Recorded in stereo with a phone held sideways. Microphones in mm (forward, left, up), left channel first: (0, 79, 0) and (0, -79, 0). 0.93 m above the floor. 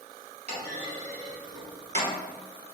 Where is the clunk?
45° right (ahead or behind), 1.1 m.